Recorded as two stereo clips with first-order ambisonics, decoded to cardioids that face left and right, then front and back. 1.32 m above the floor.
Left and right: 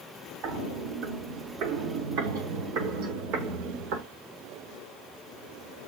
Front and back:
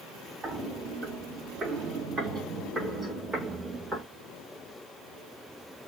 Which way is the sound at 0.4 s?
115° right.